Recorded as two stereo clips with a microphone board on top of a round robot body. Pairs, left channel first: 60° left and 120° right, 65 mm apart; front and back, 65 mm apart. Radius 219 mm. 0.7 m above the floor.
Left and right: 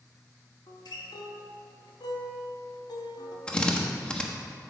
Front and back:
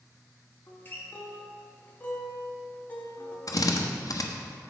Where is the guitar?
65° left, 1.1 m.